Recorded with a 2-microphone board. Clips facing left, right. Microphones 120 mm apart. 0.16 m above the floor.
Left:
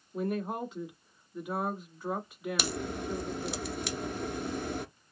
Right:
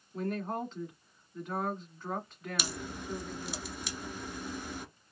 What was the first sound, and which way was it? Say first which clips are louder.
A woman speaking: left 2 dB; 10° left (ahead or behind).